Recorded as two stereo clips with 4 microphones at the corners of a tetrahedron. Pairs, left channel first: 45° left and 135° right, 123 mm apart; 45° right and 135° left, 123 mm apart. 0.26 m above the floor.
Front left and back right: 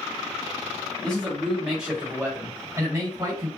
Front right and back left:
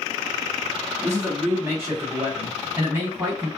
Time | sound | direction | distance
1.0 | a man speaking | 115° left | 1.6 m